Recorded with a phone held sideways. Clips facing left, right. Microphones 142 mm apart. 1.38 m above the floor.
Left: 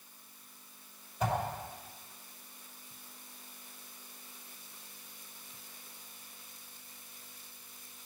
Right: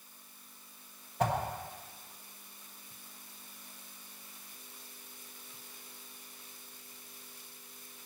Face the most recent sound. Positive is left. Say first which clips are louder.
# right 3 dB
turn(degrees=-75)  # may be behind; listen again after turning